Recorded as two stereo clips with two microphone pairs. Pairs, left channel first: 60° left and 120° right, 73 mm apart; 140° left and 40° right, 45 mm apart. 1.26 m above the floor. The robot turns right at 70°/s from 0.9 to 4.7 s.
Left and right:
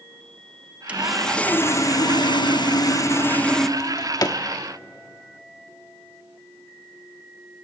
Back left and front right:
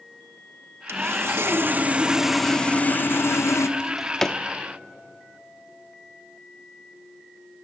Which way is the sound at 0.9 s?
50° right.